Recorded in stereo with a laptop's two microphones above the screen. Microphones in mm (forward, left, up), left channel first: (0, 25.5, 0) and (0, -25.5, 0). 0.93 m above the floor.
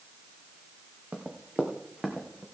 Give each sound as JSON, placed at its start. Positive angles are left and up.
{"t": 1.1, "sound": "running footsteps", "side_deg": -30, "distance_m": 3.0}